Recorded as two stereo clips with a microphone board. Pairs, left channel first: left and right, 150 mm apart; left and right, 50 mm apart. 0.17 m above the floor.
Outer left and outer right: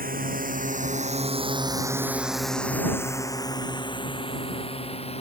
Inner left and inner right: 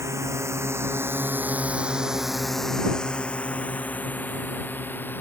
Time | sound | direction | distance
0.0 | a drone | 75° right (ahead or behind) | ?